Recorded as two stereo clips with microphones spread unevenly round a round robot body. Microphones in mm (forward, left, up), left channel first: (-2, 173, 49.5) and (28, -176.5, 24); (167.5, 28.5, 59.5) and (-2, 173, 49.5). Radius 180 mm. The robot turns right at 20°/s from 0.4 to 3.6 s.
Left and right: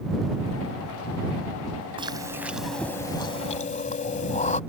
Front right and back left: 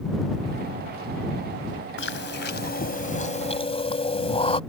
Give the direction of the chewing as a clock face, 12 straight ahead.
12 o'clock.